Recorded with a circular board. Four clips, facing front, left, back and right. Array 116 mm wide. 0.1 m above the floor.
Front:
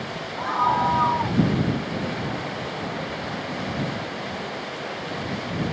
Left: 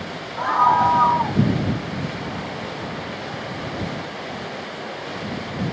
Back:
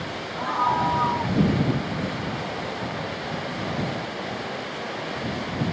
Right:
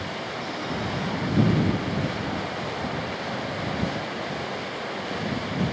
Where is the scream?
90° left; by 1.4 s 80° left.